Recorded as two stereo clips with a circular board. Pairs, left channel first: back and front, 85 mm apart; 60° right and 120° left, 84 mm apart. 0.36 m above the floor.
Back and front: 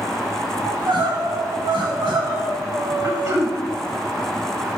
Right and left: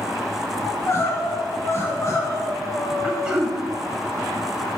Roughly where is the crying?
Ahead.